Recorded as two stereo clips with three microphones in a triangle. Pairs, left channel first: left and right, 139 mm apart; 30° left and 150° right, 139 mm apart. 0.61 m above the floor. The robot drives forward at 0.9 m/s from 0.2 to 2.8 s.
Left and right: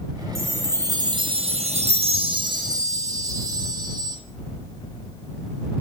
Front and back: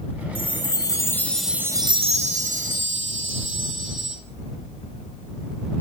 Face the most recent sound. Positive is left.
turn(degrees=-150)